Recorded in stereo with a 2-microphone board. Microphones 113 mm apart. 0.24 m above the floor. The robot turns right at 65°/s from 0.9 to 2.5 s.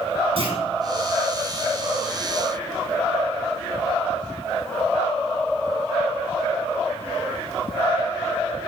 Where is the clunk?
55° right (ahead or behind), 2.5 m.